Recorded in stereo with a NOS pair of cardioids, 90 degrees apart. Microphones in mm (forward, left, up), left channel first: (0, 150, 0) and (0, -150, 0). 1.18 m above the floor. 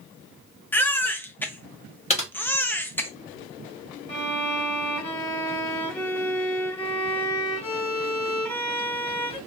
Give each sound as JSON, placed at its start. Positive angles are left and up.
{"t": 0.7, "sound": "a baby crying", "azimuth_deg": 5, "distance_m": 0.6}
{"t": 2.1, "sound": "typing on a keyboard", "azimuth_deg": 25, "distance_m": 1.3}
{"t": 4.1, "sound": "a violin", "azimuth_deg": 5, "distance_m": 1.6}